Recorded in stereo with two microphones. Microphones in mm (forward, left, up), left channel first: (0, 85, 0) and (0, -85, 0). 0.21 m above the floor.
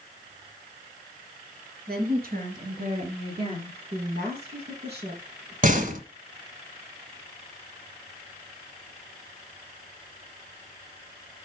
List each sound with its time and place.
1.9 s a woman speaking: 65° right (ahead or behind), 4 m; by 3.8 s 30° right (ahead or behind), 4 m
3.9 s a woman speaking: 70° right (ahead or behind), 4 m
5.6 s a door slam: 50° right (ahead or behind), 1.5 m